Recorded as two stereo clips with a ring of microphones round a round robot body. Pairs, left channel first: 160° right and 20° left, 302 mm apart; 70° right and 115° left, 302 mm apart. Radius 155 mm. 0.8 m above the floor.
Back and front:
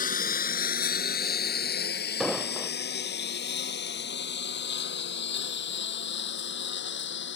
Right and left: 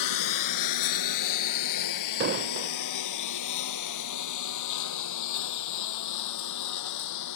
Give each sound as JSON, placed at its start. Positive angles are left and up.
{"t": 0.0, "sound": "a lawn mower", "azimuth_deg": -95}
{"t": 2.2, "sound": "an explosion", "azimuth_deg": 110}